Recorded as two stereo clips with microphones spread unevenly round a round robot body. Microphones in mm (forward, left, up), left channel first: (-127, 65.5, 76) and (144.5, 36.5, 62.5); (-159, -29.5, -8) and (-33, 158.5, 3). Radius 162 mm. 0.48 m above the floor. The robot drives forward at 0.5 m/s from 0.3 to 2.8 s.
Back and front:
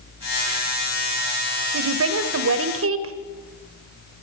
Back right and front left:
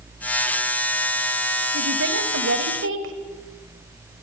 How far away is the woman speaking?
About 2.5 m.